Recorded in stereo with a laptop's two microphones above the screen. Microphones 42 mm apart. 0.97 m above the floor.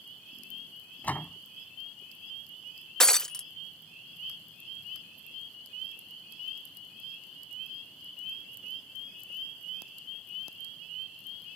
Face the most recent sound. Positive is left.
turn(degrees=15)  # may be behind; listen again after turning